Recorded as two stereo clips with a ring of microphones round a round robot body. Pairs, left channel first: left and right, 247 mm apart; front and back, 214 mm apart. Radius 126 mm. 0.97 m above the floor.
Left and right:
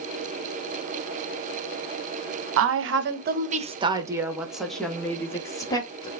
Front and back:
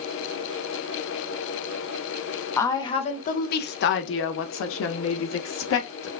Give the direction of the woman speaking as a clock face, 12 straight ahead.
3 o'clock.